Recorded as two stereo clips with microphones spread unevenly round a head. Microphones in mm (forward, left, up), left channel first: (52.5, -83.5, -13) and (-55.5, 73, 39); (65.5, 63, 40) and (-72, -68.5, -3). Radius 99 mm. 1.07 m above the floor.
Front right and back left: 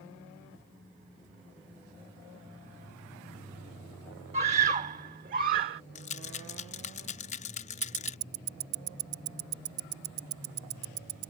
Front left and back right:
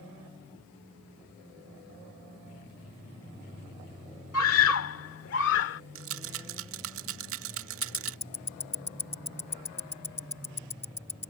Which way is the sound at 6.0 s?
115° right.